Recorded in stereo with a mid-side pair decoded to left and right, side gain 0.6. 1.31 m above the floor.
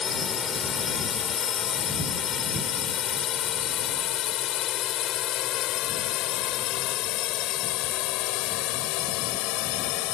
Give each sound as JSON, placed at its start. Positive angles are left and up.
{"t": 0.0, "sound": "a drone", "azimuth_deg": 35}